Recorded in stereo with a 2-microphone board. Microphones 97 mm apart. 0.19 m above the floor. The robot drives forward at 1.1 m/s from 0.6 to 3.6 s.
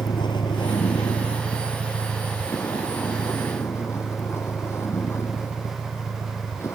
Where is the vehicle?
50° left (ahead or behind); by 6.8 s 25° left (ahead or behind).